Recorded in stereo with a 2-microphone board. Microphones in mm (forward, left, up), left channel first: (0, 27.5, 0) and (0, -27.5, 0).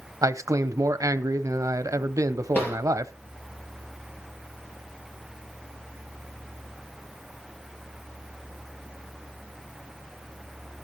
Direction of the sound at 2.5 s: 40° left (ahead or behind).